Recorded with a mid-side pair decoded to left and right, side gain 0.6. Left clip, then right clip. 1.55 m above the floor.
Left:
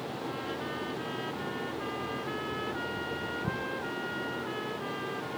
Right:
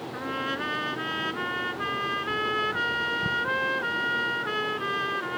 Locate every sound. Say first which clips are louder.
0.1 s a trumpet: right 10 dB; 50° right